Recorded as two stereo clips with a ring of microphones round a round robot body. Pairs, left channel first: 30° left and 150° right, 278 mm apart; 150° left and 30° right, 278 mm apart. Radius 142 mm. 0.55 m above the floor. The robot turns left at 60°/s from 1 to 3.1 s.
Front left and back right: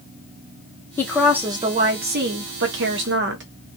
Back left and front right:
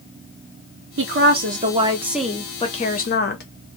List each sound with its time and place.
1.0 s a woman speaking: 50° right, 0.9 m; by 3.4 s 175° right, 0.9 m